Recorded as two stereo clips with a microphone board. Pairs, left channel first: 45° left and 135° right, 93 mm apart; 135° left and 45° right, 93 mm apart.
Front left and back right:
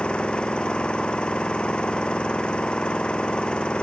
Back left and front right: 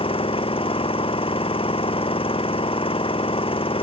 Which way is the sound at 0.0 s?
125° left.